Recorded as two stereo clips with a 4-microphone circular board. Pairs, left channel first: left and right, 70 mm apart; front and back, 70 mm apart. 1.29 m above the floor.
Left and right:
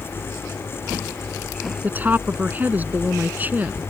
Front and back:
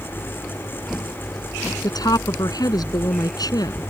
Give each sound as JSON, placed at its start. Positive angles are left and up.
{"t": 1.8, "sound": "a woman speaking", "azimuth_deg": -25}